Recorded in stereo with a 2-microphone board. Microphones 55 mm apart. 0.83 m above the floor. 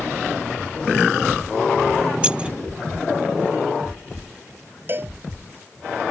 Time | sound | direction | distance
2.2 | keys jangling | 20° right (ahead or behind) | ?
4.9 | a cowbell | 40° right (ahead or behind) | ?